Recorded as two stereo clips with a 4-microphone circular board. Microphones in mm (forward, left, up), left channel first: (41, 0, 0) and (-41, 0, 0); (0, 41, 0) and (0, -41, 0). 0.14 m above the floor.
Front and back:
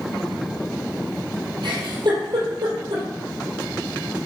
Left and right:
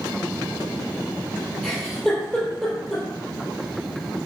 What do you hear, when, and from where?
1.6 s a giggle: 175° left, 4 m